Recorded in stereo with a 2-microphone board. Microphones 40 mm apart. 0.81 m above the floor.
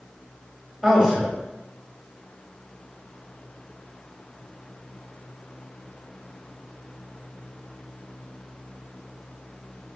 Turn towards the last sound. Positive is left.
turn(degrees=-20)  # may be behind; listen again after turning